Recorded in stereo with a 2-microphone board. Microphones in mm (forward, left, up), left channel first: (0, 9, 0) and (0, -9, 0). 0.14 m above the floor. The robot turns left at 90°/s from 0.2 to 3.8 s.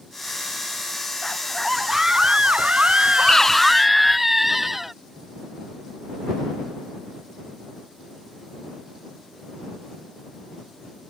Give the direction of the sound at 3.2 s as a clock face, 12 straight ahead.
10 o'clock.